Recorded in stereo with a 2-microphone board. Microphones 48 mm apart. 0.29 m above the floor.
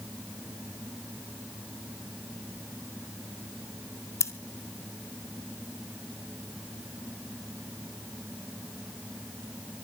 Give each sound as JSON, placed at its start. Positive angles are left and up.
{"t": 4.2, "sound": "scissors", "side_deg": 85, "distance_m": 0.8}